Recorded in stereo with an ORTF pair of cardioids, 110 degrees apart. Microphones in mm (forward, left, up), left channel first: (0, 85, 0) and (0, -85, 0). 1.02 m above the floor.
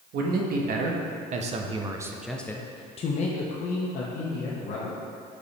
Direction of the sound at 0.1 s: 70° right.